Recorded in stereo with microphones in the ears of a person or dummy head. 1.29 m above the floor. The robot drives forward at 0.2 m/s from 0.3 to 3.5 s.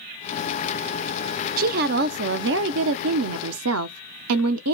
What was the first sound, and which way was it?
A woman speaking, 55° right (ahead or behind).